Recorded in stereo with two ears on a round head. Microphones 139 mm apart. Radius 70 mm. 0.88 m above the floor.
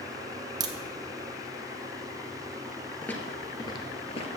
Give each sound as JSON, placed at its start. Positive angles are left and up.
{"t": 0.6, "sound": "a crack", "side_deg": -25, "distance_m": 0.8}
{"t": 3.0, "sound": "footsteps", "side_deg": 10, "distance_m": 1.1}